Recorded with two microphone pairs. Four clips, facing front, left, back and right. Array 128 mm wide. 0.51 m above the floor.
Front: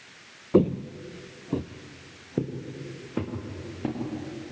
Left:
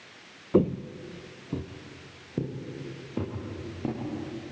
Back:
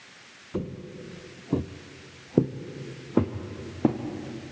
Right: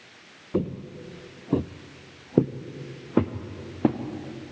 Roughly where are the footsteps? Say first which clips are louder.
Left 5 dB, front 12 dB; ahead.